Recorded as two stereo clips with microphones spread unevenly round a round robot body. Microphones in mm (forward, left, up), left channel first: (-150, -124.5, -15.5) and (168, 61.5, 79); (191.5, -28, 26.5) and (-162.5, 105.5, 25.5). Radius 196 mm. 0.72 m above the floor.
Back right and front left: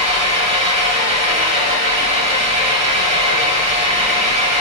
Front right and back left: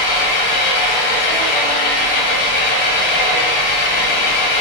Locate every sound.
0.0 s an engine running: 25° right, 1.5 m